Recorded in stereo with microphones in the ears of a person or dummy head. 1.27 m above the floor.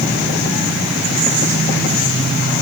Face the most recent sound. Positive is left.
No sound to turn to.